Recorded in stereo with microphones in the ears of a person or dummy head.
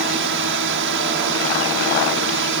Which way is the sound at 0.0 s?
55° right (ahead or behind).